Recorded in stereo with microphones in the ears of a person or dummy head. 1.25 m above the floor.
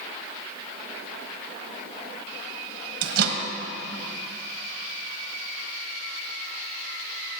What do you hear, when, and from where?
3.0 s a microwave: 70° right (ahead or behind), 1.1 m